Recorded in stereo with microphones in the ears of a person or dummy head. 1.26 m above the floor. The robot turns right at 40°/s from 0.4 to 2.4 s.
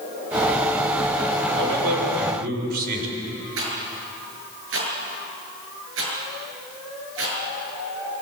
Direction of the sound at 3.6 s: 75° right (ahead or behind).